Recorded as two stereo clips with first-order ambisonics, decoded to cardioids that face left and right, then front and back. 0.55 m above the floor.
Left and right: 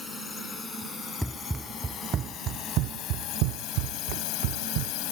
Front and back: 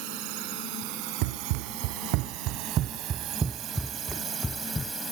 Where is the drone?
170° left; by 5.1 s 95° left.